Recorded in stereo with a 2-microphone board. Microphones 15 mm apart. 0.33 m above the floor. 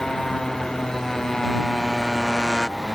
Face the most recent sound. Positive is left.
turn(degrees=45)  # may be behind; listen again after turning